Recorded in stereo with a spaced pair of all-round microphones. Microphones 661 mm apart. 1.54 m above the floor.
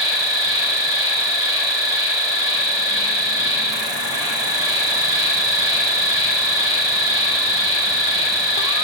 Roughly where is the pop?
I don't hear a pop.